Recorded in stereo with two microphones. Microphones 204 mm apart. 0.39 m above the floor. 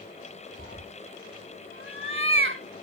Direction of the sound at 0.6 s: 85° right.